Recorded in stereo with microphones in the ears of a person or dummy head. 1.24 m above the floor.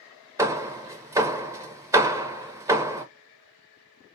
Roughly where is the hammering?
Centre.